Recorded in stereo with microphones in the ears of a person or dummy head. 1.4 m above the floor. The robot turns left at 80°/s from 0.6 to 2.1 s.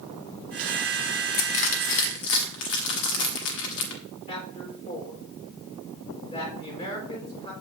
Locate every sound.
1.3 s crushing: 15° left (ahead or behind), 1.6 m; by 4.0 s 60° left (ahead or behind), 1.6 m
4.3 s a man speaking: 30° left (ahead or behind), 4.5 m